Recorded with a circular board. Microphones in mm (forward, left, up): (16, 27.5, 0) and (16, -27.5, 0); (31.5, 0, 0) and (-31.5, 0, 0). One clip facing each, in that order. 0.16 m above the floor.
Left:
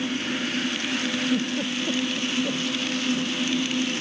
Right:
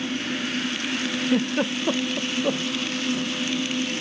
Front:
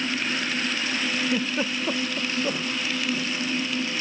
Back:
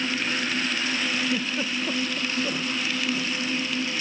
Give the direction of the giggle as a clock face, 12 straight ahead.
2 o'clock.